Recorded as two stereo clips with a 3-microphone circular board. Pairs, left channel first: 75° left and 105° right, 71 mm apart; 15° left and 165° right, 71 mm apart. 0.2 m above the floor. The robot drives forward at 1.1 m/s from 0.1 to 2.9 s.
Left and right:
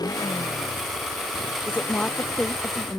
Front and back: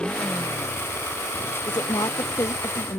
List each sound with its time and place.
0.0 s a motorcycle: 90° left; by 3.0 s 95° left
1.7 s a woman speaking: 5° left